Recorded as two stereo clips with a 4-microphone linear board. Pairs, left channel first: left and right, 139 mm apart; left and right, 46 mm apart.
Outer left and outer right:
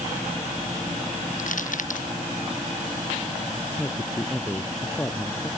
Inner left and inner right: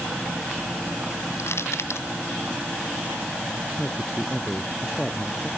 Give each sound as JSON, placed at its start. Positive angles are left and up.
{"t": 1.4, "sound": "crushing", "side_deg": 70}
{"t": 3.8, "sound": "a man speaking", "side_deg": 15}